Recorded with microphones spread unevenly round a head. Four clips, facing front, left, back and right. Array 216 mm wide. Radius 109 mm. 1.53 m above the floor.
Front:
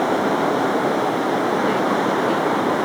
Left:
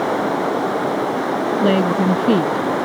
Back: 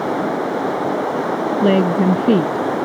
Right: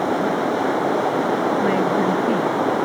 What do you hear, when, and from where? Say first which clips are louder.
1.6 s a woman speaking: left 2 dB, back 4 dB; 155° left